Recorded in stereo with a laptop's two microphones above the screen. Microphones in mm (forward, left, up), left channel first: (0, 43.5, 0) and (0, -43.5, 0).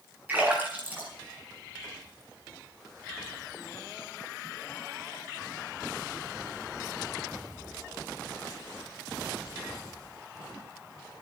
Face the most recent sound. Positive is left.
turn(degrees=-20)  # may be behind; listen again after turning